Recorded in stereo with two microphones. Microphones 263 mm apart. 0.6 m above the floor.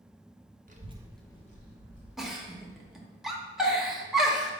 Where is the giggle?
Centre (ahead or behind), 0.6 m.